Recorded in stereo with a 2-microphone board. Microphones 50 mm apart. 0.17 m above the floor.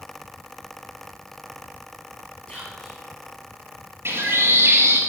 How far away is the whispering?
About 3 m.